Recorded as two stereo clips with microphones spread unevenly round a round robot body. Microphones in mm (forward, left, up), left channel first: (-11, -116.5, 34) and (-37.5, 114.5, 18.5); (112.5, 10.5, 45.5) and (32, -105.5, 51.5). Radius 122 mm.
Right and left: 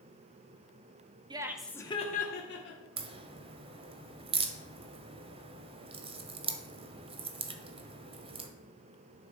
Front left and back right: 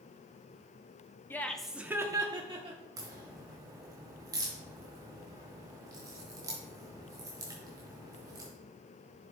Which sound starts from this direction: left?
Laughter, at 1.3 s.